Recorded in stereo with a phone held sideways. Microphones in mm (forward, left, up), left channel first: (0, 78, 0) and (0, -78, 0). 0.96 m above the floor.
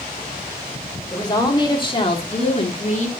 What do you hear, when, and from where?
1.1 s a woman speaking: 25° left (ahead or behind), 2.5 m; by 3.1 s 50° left (ahead or behind), 1.7 m